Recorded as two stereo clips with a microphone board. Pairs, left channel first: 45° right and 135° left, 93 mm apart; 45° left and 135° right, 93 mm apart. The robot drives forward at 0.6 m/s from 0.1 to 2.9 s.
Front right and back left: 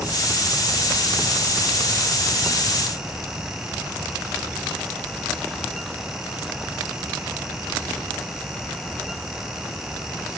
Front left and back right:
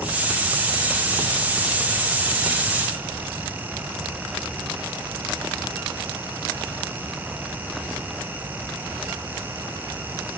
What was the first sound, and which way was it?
Only background noise.